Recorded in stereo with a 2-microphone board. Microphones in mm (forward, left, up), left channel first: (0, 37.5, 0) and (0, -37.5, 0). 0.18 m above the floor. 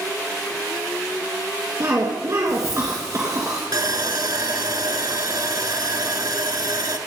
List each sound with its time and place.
1.8 s a cough: 45° right (ahead or behind), 2.5 m
3.7 s sawing: 60° right (ahead or behind), 1.3 m